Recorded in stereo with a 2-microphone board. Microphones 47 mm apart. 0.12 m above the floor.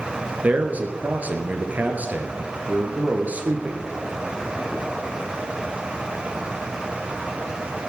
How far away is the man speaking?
About 1.9 m.